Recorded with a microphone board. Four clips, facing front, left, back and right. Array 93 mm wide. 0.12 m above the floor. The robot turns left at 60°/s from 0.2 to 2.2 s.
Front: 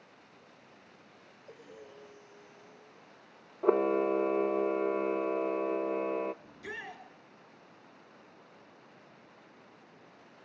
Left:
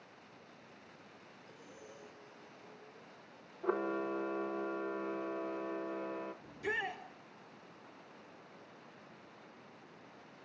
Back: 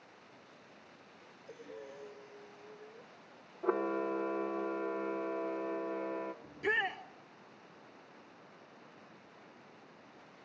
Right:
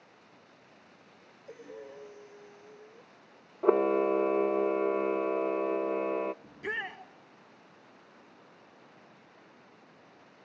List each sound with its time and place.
1.5 s breathing: 65° right, 2.5 m; by 3.1 s 110° right, 2.5 m
3.6 s a camera shutter: 65° right, 0.5 m
6.4 s a shout: 145° right, 1.9 m